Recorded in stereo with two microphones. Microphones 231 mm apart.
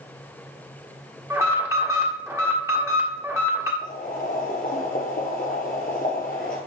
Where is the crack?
No crack in this recording.